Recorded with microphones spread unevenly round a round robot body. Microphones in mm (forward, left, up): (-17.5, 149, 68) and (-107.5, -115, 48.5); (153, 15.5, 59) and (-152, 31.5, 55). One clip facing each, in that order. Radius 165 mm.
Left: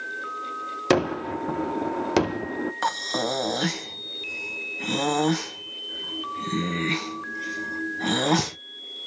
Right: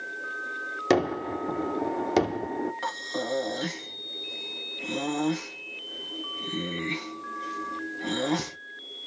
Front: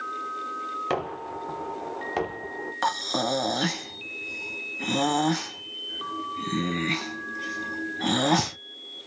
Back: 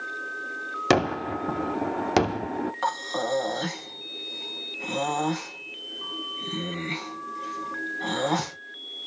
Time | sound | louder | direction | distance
0.9 | a gunshot | left 2 dB, back 8 dB | 150° left | 0.7 m
2.8 | breathing | left 4 dB, front 1 dB | 40° left | 1.3 m